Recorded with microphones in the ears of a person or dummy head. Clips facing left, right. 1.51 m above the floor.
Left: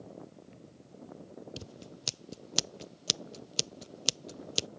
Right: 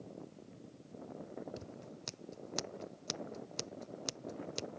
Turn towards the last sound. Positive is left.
turn(degrees=45)  # may be behind; listen again after turning